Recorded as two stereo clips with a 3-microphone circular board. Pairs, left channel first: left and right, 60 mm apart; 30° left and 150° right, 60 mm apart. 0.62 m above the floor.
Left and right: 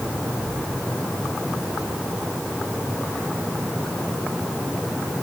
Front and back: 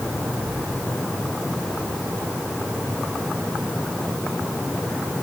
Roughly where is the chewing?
No chewing in this recording.